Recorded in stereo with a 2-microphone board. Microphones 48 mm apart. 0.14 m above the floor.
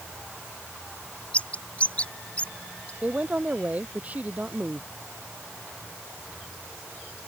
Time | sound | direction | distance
1.3 | a bird | 25° left (ahead or behind) | ?
3.0 | a woman speaking | 30° right (ahead or behind) | ?